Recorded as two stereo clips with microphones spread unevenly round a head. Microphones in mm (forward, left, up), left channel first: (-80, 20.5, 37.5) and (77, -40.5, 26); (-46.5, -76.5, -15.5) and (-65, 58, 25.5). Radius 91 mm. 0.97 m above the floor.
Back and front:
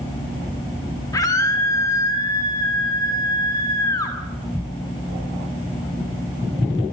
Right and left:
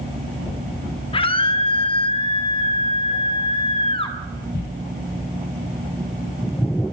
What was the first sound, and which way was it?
A scream, 130° right.